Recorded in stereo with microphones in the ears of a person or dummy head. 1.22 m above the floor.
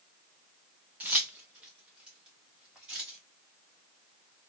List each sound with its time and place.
1.0 s keys jangling: 5° right (ahead or behind), 0.6 m